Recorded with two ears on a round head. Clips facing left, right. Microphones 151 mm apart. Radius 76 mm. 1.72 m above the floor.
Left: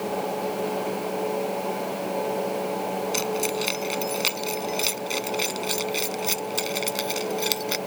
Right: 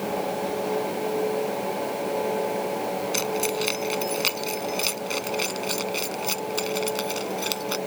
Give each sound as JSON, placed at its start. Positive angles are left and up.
{"t": 3.1, "sound": "keys jangling", "side_deg": 0}